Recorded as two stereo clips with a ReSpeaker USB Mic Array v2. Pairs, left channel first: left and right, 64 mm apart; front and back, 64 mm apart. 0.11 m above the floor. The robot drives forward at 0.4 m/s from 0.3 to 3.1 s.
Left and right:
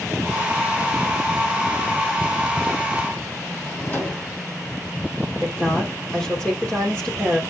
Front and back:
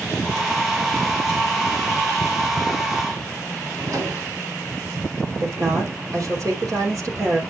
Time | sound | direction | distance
3.6 | a drawer | 150° left | 3.5 m
5.4 | a woman speaking | 165° left | 3 m